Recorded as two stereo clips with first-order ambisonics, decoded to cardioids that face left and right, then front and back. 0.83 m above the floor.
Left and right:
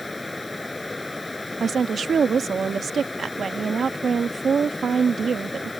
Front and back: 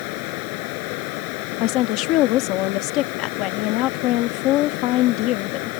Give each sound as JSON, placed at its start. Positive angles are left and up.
{"t": 0.0, "sound": "running water", "azimuth_deg": 10}
{"t": 1.6, "sound": "a woman speaking", "azimuth_deg": -20}